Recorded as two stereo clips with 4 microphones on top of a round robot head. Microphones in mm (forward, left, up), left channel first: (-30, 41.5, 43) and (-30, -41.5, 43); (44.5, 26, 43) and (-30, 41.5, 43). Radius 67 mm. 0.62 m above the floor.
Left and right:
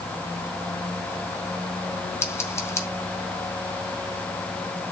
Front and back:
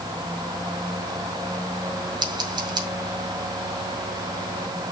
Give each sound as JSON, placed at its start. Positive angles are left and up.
{"t": 2.2, "sound": "scissors", "azimuth_deg": 145, "distance_m": 2.0}